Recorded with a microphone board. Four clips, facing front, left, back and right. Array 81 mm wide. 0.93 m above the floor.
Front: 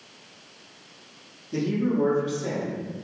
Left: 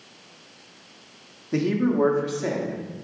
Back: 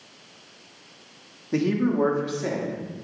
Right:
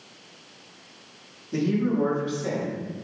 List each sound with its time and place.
1.5 s a man speaking: 140° left, 1.7 m; by 2.8 s 120° left, 2.5 m